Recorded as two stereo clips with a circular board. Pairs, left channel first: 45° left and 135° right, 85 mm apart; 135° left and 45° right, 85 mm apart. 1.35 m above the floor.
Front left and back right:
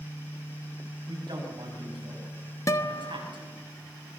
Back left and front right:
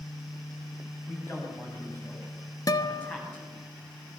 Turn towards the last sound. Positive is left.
turn(degrees=95)